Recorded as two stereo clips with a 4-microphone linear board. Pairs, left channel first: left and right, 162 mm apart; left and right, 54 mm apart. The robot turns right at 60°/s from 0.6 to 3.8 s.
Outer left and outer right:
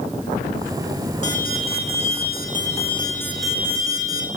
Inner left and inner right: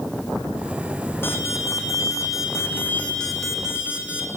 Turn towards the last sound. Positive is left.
turn(degrees=-160)